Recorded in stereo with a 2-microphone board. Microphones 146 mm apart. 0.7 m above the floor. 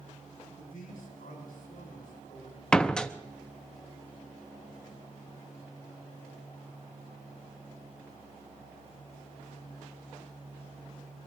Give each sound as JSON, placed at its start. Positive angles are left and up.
{"t": 0.6, "sound": "a man speaking", "side_deg": 80, "distance_m": 6.5}
{"t": 2.7, "sound": "a door slam", "side_deg": 5, "distance_m": 0.6}